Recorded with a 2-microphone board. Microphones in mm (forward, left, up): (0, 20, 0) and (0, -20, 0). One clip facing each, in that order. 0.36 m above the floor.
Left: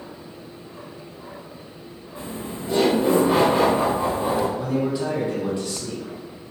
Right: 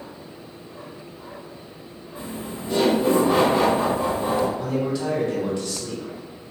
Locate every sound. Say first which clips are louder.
2.1 s laughter: left 1 dB; 15° left (ahead or behind), 1.4 m; by 4.5 s 20° left (ahead or behind), 1.3 m
4.6 s a man speaking: left 1 dB; 20° left (ahead or behind), 2.0 m